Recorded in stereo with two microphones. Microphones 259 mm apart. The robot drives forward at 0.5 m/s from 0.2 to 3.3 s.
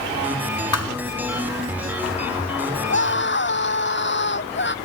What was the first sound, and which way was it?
A thud, 70° left (ahead or behind).